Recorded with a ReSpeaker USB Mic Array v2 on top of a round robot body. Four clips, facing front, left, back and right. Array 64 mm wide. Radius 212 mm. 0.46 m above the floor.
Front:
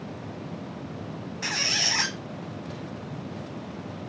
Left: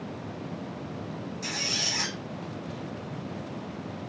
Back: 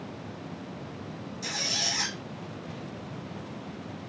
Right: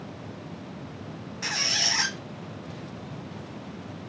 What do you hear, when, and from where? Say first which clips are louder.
1.4 s a squeak: right 6 dB, front 5 dB; 40° right, 1.1 m